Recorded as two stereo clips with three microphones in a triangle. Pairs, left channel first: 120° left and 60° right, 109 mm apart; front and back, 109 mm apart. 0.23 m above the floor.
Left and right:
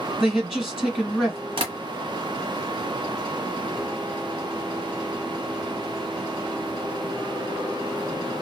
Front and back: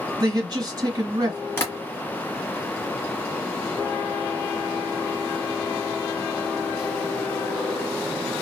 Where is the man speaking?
145° right, 1.5 m.